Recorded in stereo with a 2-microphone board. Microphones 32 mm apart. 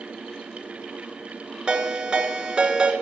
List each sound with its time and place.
1.7 s a ringtone: 25° right (ahead or behind), 1.8 m